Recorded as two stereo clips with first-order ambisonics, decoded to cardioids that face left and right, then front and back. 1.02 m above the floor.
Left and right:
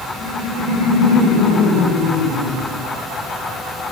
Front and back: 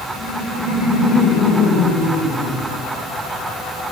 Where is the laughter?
60° left, 5.5 m; by 3.9 s 40° left, 5 m.